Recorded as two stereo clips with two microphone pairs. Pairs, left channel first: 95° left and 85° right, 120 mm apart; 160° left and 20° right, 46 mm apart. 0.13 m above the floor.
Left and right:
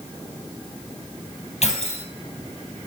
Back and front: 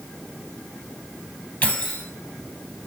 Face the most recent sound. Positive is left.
turn(degrees=115)